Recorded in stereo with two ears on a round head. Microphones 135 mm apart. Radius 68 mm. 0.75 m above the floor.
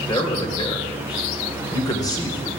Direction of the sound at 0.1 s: 25° left (ahead or behind).